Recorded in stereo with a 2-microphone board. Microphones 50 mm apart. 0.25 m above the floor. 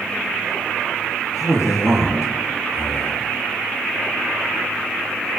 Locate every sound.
1.3 s a man speaking: 75° left (ahead or behind), 5 m